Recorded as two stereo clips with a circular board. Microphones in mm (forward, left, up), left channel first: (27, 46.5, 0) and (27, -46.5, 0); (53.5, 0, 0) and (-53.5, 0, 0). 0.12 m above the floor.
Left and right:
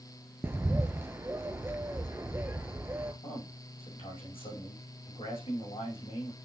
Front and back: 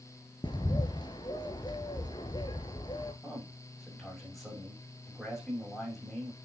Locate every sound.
0.4 s a bird: 30° right, 1.1 m
3.2 s a man speaking: 90° left, 6.5 m